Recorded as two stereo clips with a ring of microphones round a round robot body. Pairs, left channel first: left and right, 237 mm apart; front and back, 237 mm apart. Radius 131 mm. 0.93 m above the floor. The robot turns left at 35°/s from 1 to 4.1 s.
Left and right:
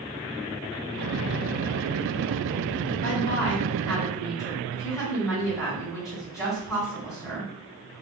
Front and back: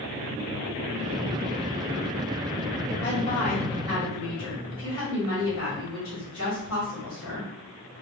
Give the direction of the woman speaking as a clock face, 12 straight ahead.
11 o'clock.